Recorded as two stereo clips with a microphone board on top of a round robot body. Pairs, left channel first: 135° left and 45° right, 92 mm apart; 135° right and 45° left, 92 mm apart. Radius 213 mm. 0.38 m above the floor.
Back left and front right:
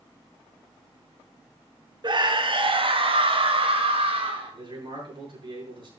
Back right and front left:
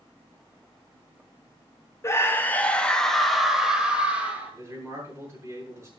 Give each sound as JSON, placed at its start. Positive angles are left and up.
{"t": 2.0, "sound": "a scream", "azimuth_deg": -75, "distance_m": 2.0}
{"t": 4.5, "sound": "a man speaking", "azimuth_deg": -15, "distance_m": 8.5}